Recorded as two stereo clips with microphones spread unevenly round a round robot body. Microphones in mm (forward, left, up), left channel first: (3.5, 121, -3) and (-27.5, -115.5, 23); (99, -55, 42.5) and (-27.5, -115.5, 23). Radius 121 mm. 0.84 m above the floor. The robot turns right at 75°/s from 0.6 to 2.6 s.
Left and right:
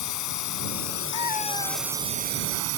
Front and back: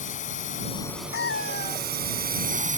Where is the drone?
85° left; by 2.8 s 125° right.